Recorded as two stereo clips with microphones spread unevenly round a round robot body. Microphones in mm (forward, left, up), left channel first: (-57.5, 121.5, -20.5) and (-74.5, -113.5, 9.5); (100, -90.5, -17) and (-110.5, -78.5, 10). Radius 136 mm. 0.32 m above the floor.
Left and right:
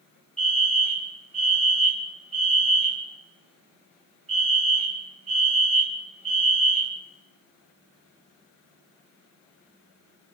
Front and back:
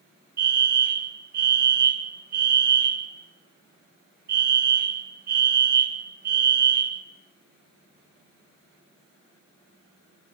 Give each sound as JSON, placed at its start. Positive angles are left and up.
{"t": 0.4, "sound": "a fire alarm", "azimuth_deg": -155, "distance_m": 2.5}